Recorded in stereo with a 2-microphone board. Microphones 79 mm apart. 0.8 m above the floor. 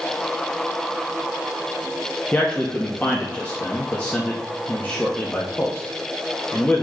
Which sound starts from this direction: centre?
A man speaking, at 2.3 s.